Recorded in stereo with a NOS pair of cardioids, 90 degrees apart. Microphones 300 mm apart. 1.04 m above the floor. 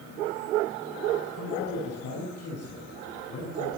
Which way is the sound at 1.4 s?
55° left.